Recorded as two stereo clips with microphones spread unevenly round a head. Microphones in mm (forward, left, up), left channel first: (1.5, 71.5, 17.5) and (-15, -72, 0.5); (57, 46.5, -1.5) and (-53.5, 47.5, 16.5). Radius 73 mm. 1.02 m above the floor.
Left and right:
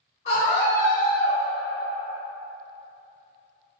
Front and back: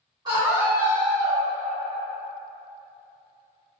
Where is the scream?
130° left, 1.7 m; by 1.4 s 150° left, 1.3 m.